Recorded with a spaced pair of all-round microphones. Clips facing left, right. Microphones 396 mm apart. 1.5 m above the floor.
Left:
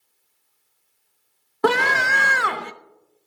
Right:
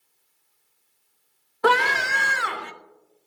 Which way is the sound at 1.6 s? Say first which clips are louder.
Left 2 dB; 60° left (ahead or behind).